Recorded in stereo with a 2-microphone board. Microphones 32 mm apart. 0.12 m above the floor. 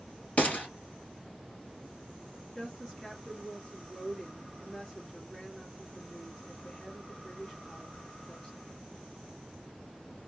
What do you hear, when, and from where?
0.4 s a gunshot: 50° left (ahead or behind), 2.0 m
2.5 s a woman speaking: 15° left (ahead or behind), 2.5 m